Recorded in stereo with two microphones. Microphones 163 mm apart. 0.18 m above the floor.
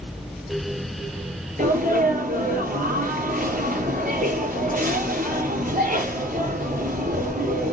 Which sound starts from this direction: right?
A sneeze, at 1.6 s.